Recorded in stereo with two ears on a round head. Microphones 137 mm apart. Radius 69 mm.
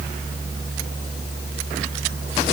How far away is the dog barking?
I don't hear a dog barking.